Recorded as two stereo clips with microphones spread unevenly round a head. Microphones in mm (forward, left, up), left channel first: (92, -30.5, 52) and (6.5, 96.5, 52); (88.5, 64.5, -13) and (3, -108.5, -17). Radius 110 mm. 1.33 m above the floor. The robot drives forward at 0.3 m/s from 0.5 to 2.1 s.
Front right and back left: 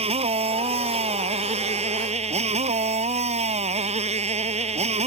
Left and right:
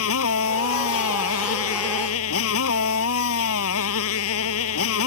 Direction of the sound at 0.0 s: 75° left.